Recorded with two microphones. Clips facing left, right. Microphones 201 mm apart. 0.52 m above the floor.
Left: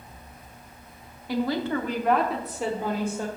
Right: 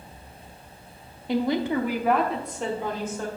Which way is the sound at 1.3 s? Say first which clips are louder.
Right 2 dB; 20° right (ahead or behind).